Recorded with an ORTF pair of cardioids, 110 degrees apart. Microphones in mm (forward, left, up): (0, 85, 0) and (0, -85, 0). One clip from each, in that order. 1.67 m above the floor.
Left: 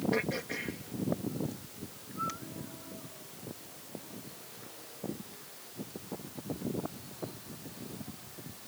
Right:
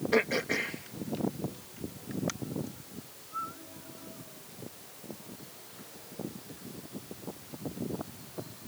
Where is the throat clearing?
45° right.